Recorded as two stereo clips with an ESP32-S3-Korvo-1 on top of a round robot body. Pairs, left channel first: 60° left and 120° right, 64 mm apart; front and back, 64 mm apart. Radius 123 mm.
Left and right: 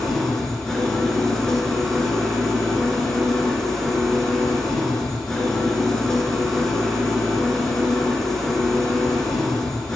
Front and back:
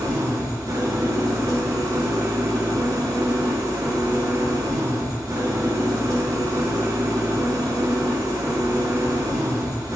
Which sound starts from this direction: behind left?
An engine running, at 0.0 s.